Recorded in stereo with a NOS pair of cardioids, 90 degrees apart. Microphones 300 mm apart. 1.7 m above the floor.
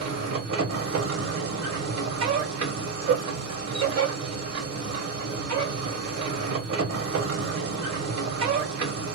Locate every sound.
0.0 s a machine running: 60° right, 1.6 m